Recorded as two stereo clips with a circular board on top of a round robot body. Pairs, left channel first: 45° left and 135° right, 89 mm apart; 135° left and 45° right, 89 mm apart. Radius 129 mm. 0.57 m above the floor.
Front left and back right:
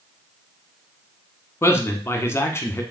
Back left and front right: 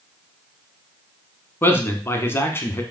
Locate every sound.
1.6 s a man speaking: 90° left, 1.0 m